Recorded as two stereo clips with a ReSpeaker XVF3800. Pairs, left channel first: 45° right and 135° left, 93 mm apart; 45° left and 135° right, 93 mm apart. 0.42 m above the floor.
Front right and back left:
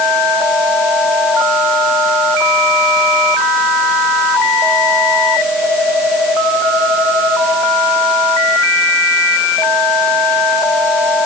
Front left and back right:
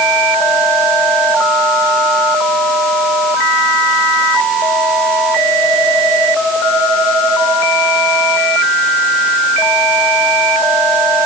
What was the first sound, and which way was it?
Only background noise.